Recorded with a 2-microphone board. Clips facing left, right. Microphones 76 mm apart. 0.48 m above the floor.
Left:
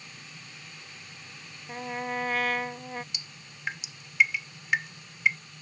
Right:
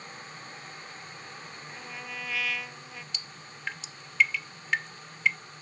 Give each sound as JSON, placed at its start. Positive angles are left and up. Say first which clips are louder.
{"t": 1.7, "sound": "a trumpet", "louder": "left 11 dB", "side_deg": 45}
{"t": 3.1, "sound": "dripping", "louder": "right 3 dB", "side_deg": 15}